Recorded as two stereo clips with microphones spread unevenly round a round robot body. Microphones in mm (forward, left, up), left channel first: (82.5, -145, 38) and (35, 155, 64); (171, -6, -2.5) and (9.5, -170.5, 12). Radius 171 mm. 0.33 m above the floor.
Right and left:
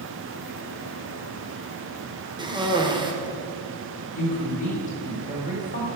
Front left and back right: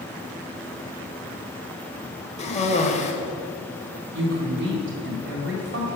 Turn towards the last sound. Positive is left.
turn(degrees=-140)